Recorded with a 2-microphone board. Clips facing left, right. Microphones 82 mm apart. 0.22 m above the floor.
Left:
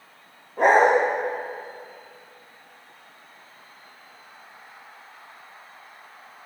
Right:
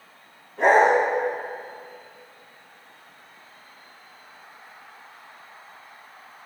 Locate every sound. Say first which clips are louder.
0.6 s a dog barking: even; 50° left (ahead or behind), 3.5 m